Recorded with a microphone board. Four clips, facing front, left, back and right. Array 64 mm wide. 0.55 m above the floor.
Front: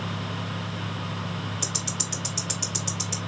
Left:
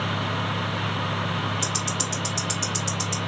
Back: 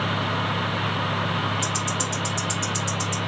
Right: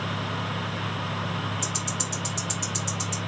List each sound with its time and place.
1.6 s ticking: 55° left, 1.6 m